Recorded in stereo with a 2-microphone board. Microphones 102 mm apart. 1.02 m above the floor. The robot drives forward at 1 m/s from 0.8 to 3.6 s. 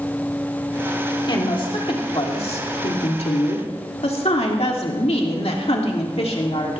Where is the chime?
I don't hear a chime.